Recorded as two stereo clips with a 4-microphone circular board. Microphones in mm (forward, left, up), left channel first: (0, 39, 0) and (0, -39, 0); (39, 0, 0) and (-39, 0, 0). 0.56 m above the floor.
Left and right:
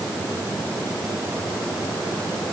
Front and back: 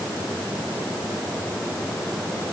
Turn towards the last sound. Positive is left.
No sound to turn to.